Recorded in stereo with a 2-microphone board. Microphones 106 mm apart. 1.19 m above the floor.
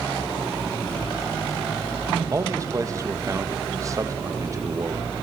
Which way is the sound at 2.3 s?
30° right (ahead or behind).